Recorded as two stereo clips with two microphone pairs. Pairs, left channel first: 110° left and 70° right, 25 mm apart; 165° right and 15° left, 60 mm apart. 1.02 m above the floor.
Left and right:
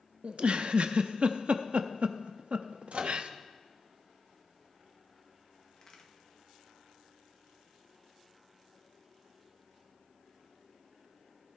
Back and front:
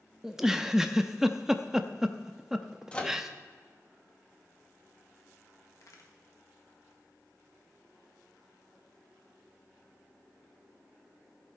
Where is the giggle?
60° right, 0.5 m.